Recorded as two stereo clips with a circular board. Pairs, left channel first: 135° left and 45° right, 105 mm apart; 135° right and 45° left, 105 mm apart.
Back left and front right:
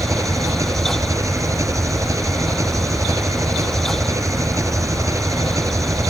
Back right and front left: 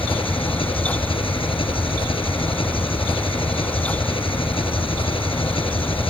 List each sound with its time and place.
0.0 s an engine running: 105° right